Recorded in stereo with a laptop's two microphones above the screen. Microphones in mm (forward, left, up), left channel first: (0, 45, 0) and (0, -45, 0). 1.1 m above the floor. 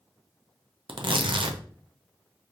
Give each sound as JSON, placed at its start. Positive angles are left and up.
{"t": 0.9, "sound": "tearing paper", "side_deg": -65, "distance_m": 0.6}